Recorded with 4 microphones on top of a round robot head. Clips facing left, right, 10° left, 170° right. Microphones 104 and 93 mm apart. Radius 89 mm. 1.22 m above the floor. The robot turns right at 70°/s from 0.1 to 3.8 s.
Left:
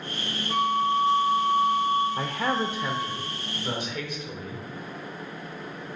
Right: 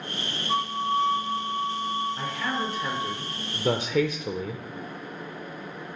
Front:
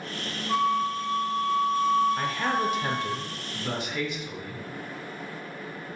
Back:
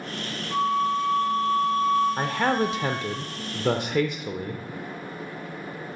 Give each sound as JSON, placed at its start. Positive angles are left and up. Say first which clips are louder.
{"t": 0.5, "sound": "a flute", "louder": "left 3 dB, back 1 dB", "azimuth_deg": -65, "distance_m": 4.0}
{"t": 2.2, "sound": "a man speaking", "louder": "left 3 dB, back 3 dB", "azimuth_deg": 130, "distance_m": 0.5}